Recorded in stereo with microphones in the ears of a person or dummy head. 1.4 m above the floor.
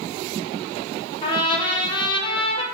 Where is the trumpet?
35° left (ahead or behind), 0.8 m.